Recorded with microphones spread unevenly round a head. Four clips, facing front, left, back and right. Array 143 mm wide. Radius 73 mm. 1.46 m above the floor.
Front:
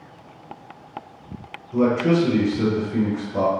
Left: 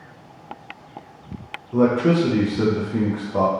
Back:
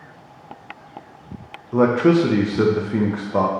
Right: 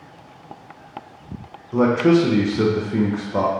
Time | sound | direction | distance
1.7 | a man speaking | 170° right | 0.5 m